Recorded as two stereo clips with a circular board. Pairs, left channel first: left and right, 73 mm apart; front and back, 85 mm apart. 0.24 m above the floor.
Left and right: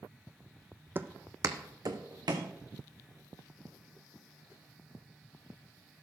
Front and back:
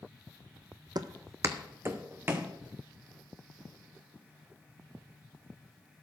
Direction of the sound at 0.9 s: 150° right.